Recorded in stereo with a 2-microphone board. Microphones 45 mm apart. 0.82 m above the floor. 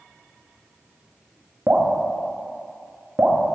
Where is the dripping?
55° right (ahead or behind), 1.4 m.